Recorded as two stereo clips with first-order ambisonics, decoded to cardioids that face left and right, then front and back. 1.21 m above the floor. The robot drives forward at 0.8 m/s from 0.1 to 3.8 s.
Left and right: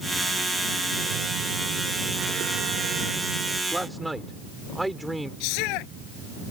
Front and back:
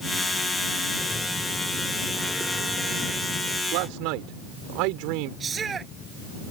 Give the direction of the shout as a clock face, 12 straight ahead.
8 o'clock.